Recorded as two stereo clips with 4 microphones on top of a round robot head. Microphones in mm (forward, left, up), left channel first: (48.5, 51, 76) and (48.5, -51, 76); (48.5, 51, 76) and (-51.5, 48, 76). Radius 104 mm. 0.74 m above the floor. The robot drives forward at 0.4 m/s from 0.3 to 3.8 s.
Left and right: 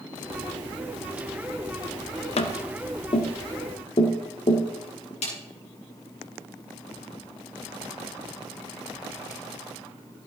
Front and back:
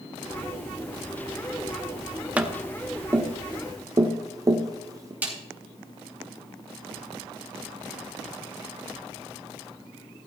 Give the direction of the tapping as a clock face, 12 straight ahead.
8 o'clock.